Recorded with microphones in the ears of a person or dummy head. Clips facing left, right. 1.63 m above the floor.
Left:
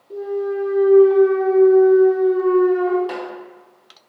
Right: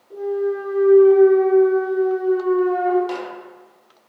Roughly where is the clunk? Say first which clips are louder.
Right 1 dB; left.